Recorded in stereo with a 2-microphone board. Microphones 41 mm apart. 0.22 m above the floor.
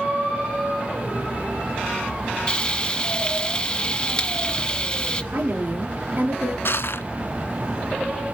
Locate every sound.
2.5 s frying: 25° left (ahead or behind), 1.3 m
5.3 s a woman speaking: 45° right (ahead or behind), 4 m
6.7 s crushing: 65° left (ahead or behind), 0.9 m